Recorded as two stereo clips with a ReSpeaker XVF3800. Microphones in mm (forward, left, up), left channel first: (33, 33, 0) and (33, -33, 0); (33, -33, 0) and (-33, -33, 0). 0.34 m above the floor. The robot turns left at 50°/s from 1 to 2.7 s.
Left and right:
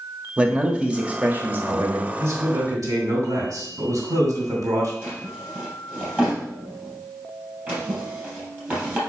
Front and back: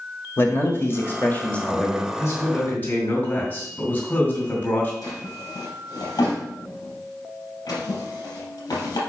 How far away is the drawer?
About 3.5 m.